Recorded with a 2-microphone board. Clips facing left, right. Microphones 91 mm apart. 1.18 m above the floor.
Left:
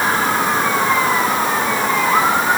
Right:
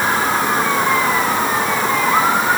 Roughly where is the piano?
I don't hear a piano.